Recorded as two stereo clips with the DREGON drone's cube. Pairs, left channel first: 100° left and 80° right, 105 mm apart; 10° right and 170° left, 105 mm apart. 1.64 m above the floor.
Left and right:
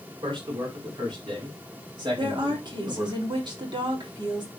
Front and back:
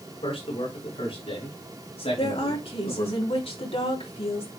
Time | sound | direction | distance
0.2 | a man speaking | 40° right | 6 m
2.2 | a woman speaking | 35° right | 3.5 m